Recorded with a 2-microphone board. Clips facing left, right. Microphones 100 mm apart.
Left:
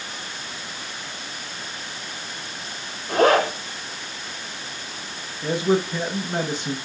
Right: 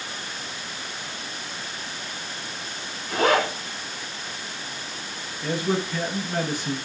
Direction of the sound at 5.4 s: 25° left (ahead or behind).